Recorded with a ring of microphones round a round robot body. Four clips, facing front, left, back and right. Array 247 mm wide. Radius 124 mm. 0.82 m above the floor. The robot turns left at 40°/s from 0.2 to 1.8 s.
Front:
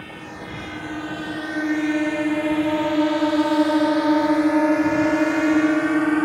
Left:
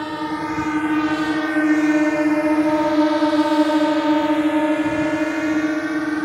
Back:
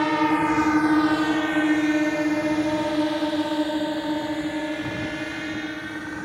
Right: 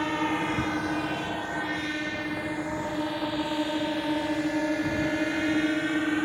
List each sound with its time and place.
0.0 s a drone: 170° left; by 6.2 s 15° left